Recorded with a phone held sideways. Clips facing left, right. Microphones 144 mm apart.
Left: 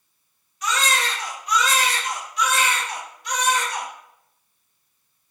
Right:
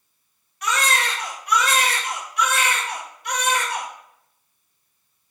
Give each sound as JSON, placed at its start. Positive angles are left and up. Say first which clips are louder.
{"t": 0.6, "sound": "a baby crying", "louder": "right 1 dB", "side_deg": -60, "distance_m": 1.0}